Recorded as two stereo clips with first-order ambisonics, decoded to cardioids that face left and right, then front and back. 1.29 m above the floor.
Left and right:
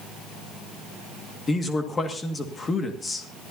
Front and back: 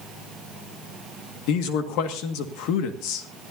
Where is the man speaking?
15° left, 1.8 m.